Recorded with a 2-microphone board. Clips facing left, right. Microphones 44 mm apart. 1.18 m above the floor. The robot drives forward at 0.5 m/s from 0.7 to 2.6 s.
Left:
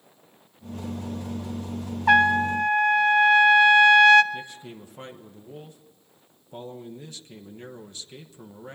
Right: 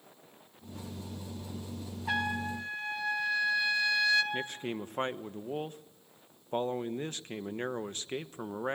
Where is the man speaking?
50° right (ahead or behind), 1.1 m.